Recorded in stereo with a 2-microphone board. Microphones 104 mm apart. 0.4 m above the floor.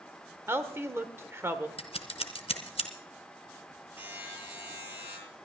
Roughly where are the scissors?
Left.